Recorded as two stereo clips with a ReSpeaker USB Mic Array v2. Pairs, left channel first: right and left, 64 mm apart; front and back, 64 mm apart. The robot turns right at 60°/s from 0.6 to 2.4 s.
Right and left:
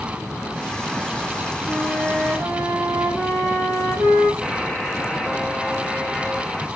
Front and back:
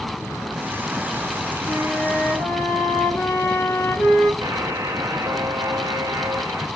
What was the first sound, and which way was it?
A flute, 10° left.